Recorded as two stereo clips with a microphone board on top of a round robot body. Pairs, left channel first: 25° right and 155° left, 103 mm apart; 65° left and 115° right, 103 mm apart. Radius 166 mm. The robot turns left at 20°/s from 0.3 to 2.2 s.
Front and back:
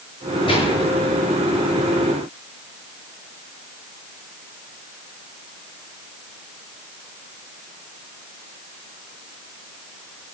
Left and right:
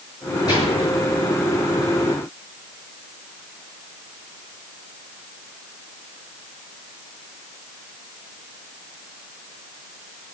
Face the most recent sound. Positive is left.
turn(degrees=-20)